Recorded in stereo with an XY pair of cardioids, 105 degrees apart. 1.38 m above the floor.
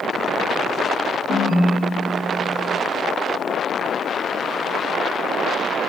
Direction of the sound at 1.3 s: 55° left.